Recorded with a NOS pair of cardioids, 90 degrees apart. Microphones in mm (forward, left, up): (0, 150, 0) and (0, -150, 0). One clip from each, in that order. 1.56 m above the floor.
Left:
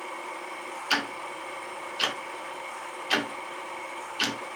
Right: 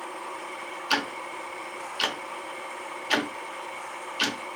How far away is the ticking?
About 0.5 m.